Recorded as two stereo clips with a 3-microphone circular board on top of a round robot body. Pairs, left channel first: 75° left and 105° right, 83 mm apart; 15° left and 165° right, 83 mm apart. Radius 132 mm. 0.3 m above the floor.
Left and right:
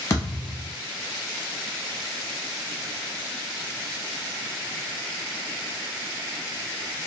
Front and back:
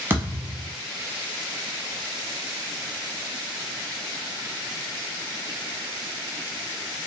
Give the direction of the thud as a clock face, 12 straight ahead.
8 o'clock.